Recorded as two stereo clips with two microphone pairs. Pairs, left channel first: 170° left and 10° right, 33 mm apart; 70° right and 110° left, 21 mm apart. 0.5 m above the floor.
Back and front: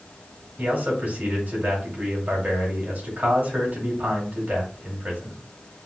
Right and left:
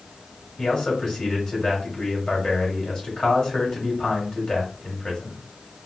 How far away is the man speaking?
About 2.5 m.